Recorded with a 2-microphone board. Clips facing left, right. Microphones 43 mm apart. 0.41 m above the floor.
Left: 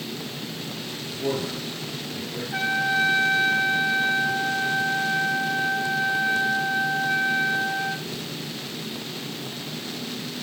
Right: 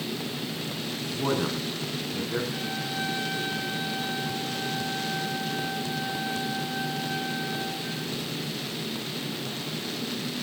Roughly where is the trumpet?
Left.